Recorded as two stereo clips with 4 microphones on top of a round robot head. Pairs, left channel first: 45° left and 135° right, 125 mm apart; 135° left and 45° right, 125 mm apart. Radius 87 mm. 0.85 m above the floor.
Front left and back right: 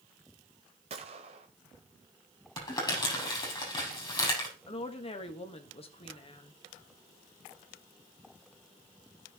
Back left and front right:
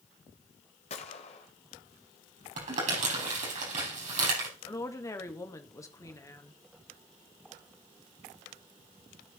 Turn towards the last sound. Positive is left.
turn(degrees=75)